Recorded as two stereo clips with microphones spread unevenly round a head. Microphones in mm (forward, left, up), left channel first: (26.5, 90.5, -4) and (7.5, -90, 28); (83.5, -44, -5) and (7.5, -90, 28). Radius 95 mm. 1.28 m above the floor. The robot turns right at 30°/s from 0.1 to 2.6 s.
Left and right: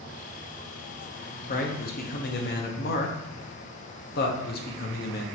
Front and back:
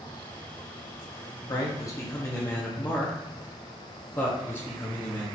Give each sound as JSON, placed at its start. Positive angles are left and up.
{"t": 1.5, "sound": "a man speaking", "azimuth_deg": 55, "distance_m": 0.8}